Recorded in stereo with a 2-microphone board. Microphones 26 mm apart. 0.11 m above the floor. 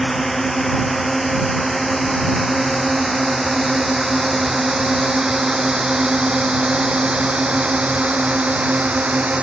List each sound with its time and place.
0.0 s a drone: 5° left (ahead or behind); by 9.4 s 60° right (ahead or behind)